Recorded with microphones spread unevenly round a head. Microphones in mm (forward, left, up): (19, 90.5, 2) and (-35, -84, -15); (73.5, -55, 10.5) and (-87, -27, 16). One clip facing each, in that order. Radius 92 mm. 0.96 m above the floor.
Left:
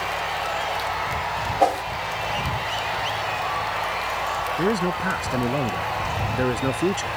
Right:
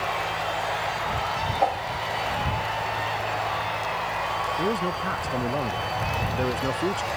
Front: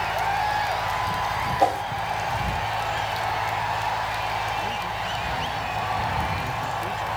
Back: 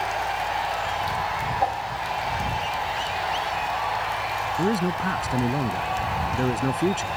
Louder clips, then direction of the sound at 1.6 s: Left 5 dB, front 5 dB; 40° left.